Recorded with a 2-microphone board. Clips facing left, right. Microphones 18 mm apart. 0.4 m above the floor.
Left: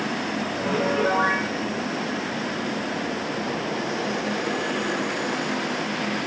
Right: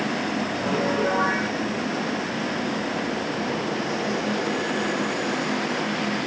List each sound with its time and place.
0.6 s a piano: 15° left (ahead or behind), 4 m